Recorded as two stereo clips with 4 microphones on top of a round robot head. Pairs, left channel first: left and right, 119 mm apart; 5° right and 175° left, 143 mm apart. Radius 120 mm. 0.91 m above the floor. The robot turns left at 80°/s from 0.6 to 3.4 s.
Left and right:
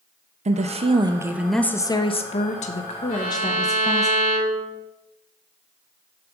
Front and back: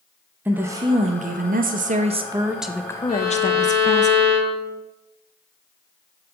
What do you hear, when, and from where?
0.5 s a woman speaking: 110° right, 0.8 m; by 4.1 s 30° left, 0.8 m
3.1 s a violin: 10° left, 3.5 m; by 4.8 s 15° right, 3.5 m